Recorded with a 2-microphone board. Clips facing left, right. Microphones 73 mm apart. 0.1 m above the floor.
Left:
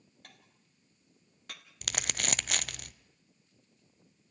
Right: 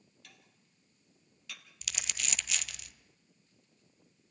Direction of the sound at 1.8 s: 55° left (ahead or behind).